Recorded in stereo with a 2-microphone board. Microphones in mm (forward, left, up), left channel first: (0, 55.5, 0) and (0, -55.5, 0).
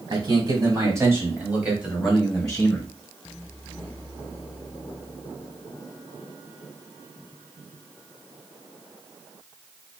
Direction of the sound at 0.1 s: 40° right (ahead or behind).